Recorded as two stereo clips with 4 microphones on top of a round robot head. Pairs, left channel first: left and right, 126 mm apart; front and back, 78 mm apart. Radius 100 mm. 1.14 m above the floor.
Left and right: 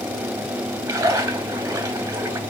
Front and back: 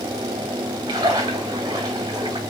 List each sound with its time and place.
0.9 s a splash: 150° right, 0.8 m